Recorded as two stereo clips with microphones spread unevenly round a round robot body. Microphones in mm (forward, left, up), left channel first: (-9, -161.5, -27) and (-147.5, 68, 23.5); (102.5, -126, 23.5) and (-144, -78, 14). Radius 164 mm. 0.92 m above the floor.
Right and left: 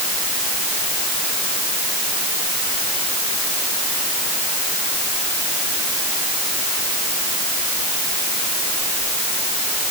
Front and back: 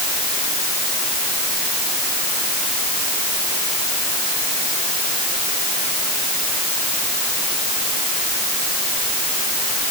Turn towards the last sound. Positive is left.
No sound to turn to.